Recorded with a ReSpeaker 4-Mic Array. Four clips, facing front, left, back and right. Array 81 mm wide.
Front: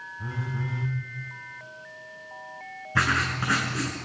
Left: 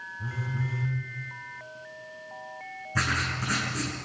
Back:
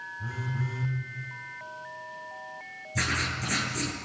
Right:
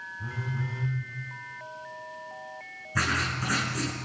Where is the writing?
Straight ahead, 7 m.